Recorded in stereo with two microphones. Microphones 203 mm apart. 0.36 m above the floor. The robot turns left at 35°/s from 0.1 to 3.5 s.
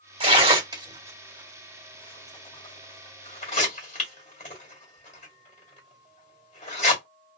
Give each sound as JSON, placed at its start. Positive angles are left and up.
{"t": 0.2, "sound": "tearing paper", "side_deg": -30, "distance_m": 1.7}